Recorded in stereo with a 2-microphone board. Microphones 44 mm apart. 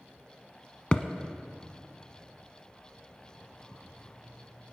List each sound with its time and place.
0.9 s a thud: 25° left (ahead or behind), 0.7 m